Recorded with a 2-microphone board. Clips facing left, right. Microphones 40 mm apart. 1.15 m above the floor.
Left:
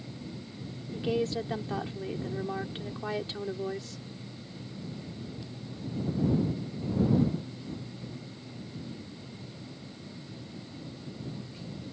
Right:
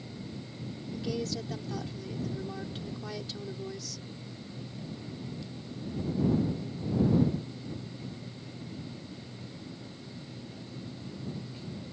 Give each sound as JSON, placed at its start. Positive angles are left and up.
{"t": 0.9, "sound": "a woman speaking", "side_deg": 30}